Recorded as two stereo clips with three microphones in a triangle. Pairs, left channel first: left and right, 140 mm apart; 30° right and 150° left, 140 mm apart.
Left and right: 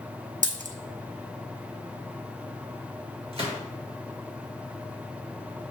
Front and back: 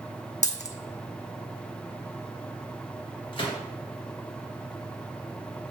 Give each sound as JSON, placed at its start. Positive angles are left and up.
{"t": 0.4, "sound": "a dropped coin", "azimuth_deg": -65, "distance_m": 0.6}
{"t": 3.3, "sound": "a gunshot", "azimuth_deg": -70, "distance_m": 1.6}